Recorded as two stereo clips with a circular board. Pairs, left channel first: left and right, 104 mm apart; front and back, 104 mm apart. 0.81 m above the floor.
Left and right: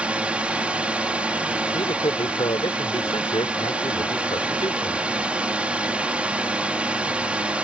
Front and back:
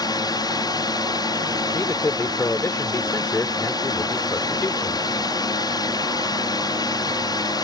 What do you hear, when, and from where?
0.0 s a drone: 15° right
1.7 s a man speaking: 65° left